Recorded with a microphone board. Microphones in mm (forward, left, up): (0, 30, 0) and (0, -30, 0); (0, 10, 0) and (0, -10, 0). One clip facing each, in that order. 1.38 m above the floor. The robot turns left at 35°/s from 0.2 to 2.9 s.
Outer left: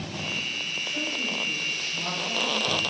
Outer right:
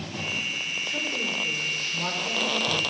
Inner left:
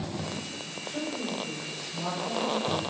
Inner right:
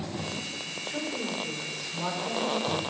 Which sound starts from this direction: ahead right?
A woman speaking, at 0.8 s.